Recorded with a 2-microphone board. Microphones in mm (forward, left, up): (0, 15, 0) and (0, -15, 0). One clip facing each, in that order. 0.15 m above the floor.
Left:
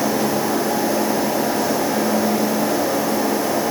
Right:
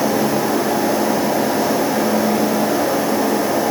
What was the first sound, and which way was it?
Only background noise.